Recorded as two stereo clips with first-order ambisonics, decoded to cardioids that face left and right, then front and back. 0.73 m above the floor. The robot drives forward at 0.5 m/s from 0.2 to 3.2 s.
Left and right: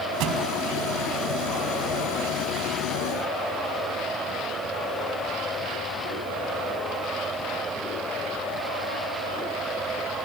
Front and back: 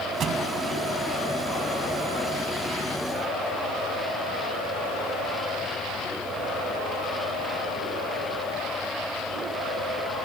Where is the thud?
125° right.